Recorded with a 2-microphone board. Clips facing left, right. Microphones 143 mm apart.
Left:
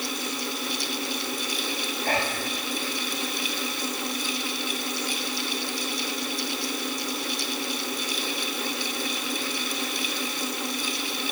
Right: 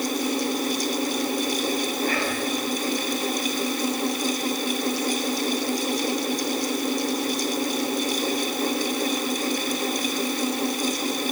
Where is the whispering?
55° left (ahead or behind), 7 m.